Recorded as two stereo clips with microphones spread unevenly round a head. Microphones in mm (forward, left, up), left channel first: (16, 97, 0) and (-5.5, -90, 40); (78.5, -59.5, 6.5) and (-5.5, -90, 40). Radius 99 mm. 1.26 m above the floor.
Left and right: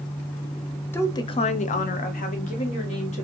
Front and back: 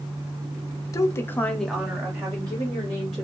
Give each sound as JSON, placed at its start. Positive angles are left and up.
{"t": 0.9, "sound": "a woman speaking", "azimuth_deg": 15, "distance_m": 0.6}